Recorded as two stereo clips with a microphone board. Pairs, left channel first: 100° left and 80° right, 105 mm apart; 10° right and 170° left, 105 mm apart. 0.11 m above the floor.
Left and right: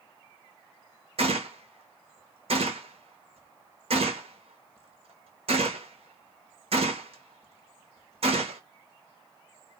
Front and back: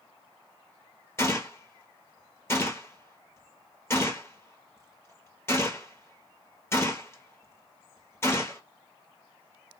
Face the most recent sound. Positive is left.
turn(degrees=-75)